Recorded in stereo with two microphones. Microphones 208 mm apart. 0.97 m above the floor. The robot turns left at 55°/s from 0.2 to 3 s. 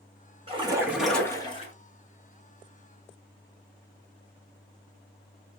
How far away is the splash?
About 1.2 m.